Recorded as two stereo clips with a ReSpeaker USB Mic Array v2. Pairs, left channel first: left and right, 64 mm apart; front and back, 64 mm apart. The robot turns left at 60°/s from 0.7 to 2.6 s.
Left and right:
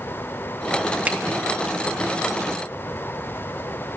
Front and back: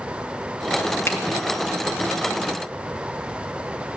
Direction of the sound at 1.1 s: 30° right.